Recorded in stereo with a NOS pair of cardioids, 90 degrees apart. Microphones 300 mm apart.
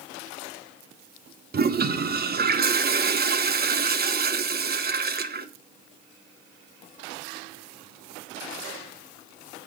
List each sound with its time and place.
1.5 s a toilet flushing: 35° right, 1.0 m